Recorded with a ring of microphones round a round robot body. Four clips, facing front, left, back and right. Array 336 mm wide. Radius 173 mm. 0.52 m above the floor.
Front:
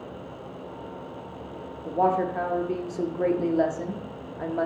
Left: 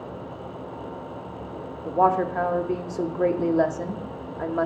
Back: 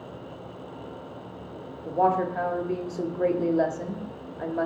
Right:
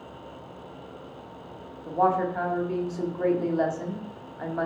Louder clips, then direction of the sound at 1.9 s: Left 3 dB, even; 90° left.